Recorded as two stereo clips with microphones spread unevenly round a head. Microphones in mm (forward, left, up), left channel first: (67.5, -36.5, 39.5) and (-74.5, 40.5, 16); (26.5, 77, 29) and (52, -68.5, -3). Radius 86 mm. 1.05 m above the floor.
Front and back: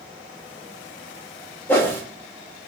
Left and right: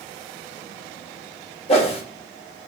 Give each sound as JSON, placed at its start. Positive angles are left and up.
{"t": 1.7, "sound": "a whoosh", "azimuth_deg": 50, "distance_m": 2.0}